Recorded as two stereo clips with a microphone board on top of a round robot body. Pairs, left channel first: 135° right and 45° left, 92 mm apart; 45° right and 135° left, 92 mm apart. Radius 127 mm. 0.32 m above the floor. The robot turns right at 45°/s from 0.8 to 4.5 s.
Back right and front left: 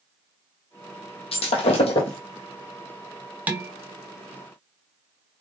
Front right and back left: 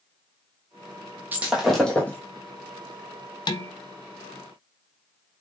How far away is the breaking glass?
About 1.1 m.